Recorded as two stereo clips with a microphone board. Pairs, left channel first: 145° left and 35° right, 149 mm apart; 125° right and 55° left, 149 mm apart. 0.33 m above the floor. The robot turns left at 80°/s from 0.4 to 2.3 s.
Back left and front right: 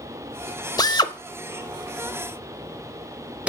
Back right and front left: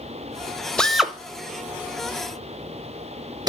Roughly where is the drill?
Behind.